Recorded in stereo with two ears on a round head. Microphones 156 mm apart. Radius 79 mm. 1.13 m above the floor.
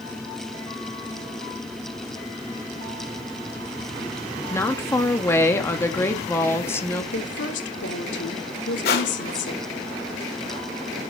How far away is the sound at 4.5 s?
About 2 m.